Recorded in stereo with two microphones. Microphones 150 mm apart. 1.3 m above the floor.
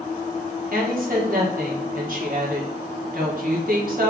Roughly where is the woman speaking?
Right.